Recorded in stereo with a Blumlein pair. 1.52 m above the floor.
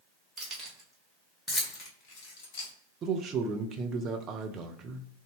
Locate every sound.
0.4 s keys jangling: 25° right, 1.3 m; by 2.7 s 50° left, 1.3 m
3.0 s a man speaking: 25° right, 0.6 m